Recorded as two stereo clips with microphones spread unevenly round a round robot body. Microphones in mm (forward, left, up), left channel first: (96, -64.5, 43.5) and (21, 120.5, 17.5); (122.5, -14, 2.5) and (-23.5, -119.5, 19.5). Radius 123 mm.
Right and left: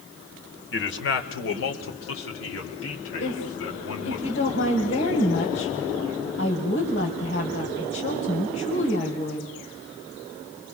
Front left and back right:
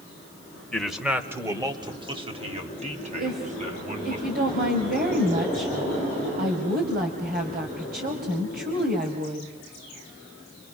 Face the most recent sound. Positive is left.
turn(degrees=-110)